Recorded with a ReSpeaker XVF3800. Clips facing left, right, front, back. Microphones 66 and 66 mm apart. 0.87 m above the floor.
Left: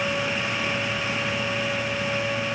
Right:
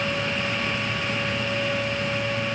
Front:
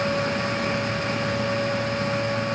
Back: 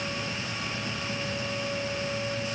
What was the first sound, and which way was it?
Only background noise.